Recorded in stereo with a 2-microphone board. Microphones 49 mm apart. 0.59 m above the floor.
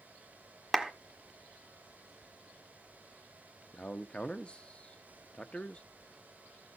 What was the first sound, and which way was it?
A clap, 5° right (ahead or behind).